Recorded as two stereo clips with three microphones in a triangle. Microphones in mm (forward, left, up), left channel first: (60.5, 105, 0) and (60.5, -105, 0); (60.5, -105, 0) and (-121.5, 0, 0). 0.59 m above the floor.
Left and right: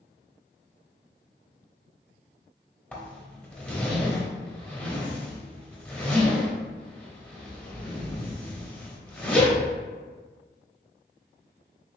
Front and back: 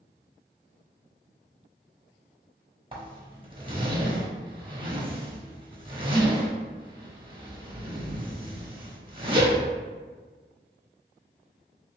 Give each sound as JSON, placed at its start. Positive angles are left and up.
{"t": 2.9, "sound": "a zipper", "azimuth_deg": 165, "distance_m": 0.9}